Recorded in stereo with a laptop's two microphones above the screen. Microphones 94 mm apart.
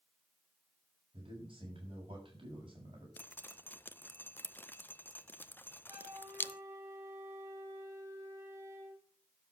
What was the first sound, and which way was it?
A man speaking, 65° right (ahead or behind).